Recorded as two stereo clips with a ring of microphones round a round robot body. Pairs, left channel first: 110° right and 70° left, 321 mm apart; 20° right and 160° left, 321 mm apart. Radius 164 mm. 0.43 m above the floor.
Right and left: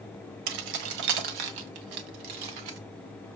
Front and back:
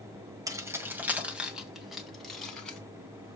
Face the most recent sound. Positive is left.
turn(degrees=65)